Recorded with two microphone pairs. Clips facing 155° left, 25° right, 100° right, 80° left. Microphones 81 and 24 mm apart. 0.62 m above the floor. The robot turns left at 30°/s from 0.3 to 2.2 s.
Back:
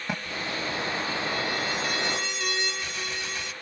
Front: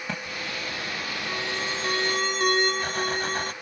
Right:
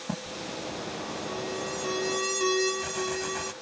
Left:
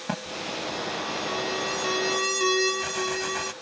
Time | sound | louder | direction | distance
0.1 | an alarm | back 3 dB, left 4 dB | 75° left | ?